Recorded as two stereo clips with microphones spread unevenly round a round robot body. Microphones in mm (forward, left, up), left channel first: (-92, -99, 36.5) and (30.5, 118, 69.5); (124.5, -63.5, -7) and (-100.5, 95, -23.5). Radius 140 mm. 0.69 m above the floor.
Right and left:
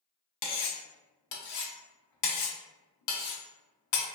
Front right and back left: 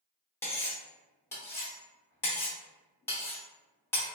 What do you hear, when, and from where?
0.4 s cutlery clinking: 120° right, 0.6 m